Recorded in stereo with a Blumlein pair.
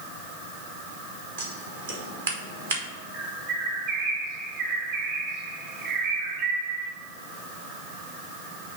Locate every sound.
1.4 s scissors: 65° right, 1.3 m
3.1 s a bird: 40° right, 1.4 m